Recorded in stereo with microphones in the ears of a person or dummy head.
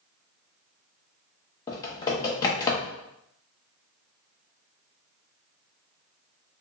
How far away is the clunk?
No clunk in this recording.